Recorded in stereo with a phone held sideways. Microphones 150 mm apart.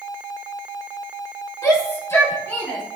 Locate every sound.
1.6 s a shout: 20° left (ahead or behind), 3.5 m; by 2.8 s 15° left (ahead or behind), 4.5 m